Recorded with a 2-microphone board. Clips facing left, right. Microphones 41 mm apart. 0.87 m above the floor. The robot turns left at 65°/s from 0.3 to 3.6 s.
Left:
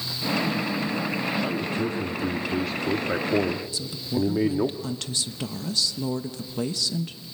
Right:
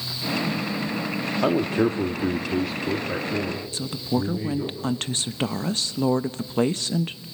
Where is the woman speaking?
40° right (ahead or behind), 0.7 m.